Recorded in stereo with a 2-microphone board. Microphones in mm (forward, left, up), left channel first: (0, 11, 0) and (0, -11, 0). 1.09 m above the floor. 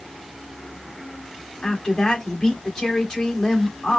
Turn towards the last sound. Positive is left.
turn(degrees=25)  # may be behind; listen again after turning